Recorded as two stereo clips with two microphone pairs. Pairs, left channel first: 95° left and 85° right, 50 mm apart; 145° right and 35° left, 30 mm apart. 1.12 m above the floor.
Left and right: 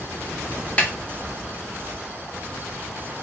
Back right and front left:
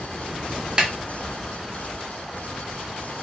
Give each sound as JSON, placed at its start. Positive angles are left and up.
{"t": 0.8, "sound": "a snare drum", "azimuth_deg": 55, "distance_m": 0.6}